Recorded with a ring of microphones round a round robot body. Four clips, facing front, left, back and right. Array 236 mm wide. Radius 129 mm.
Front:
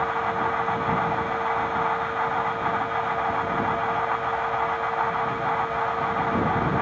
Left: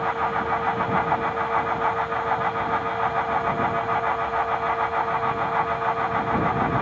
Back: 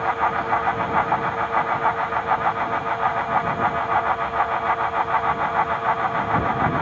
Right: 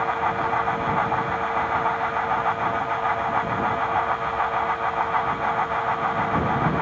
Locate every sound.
Only background noise.